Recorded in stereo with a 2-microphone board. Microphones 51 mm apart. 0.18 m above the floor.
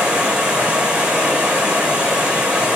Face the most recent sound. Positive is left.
turn(degrees=-25)  # may be behind; listen again after turning